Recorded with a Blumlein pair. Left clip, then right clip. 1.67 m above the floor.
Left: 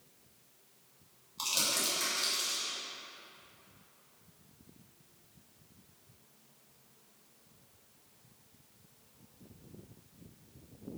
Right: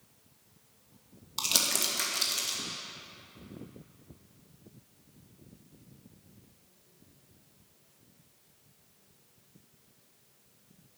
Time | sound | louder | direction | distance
1.4 | crumpling | right 4 dB | 45° right | 2.5 m